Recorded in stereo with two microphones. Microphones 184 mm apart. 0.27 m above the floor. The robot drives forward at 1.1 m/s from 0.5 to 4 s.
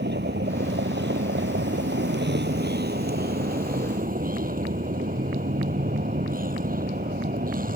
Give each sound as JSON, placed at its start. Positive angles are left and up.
{"t": 0.0, "sound": "a vehicle", "side_deg": -75}